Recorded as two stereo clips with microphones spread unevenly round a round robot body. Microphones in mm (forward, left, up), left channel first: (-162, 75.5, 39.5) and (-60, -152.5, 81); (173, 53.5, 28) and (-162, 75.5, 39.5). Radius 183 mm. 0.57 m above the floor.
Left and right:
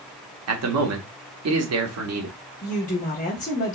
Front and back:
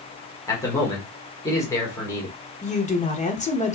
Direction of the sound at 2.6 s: 60° left.